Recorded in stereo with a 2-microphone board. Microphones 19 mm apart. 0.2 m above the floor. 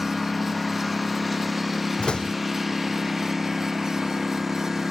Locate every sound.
0.0 s a lawn mower: 5° left (ahead or behind); by 4.9 s 10° right (ahead or behind)
2.0 s a door slam: 55° left (ahead or behind)